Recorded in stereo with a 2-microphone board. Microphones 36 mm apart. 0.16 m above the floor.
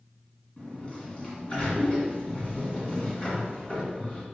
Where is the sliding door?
30° left (ahead or behind), 1.8 m.